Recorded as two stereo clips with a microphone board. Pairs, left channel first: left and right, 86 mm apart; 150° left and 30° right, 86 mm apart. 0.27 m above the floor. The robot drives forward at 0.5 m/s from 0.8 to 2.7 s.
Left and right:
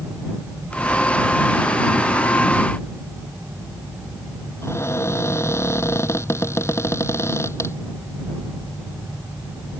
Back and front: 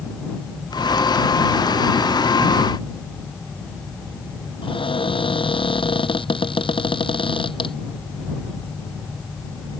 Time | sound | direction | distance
4.6 | a cupboard door | 150° left | ?